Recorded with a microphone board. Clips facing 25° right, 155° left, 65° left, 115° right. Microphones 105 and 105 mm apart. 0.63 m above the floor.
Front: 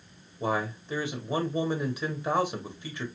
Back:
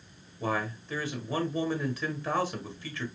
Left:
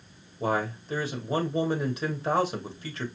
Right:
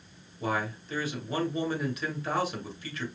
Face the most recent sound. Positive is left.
turn(degrees=40)